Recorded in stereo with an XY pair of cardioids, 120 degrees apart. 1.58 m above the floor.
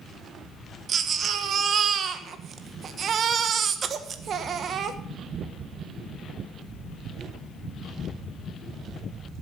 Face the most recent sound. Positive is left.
turn(degrees=-45)